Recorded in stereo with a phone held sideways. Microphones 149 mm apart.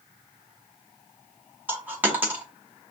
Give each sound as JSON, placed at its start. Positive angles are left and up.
{"t": 1.7, "sound": "a dropped coin", "side_deg": -10, "distance_m": 1.1}